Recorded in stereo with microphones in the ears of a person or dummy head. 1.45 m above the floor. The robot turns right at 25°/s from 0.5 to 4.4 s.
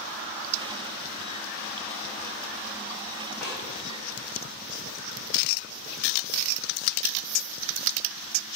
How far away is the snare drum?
About 2.5 m.